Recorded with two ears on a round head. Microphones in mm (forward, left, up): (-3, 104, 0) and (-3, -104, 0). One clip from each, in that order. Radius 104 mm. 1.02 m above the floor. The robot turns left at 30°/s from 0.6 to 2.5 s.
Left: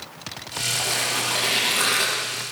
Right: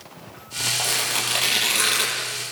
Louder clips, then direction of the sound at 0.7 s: Even; 40° right (ahead or behind).